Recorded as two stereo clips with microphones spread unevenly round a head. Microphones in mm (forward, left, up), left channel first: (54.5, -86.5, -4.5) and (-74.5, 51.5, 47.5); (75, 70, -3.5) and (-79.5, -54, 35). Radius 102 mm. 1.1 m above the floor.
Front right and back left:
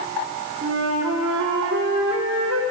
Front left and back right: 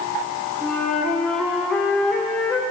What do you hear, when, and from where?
0.6 s a flute: 130° left, 1.6 m